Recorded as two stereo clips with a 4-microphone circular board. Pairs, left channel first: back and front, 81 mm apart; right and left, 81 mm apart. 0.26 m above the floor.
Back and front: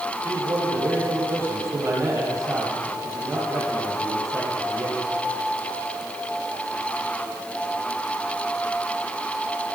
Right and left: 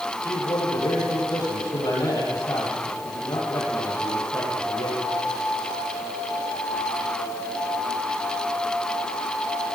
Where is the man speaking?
50° right, 9.5 m.